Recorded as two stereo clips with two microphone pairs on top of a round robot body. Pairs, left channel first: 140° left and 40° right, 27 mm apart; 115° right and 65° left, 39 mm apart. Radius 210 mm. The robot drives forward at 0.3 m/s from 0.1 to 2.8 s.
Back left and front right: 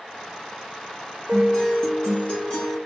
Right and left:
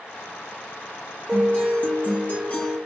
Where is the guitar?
165° right, 2.5 m.